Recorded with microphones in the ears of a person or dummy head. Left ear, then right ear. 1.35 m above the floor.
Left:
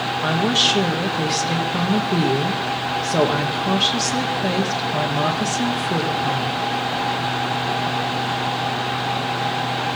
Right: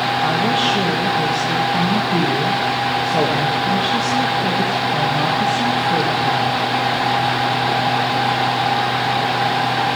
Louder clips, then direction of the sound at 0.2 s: Left 2 dB; 80° left.